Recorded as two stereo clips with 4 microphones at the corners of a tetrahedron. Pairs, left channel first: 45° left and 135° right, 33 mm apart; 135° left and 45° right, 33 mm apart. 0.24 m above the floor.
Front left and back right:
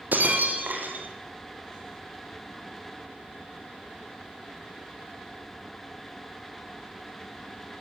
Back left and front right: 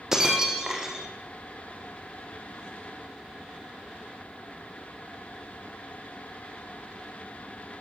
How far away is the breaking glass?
About 3.5 m.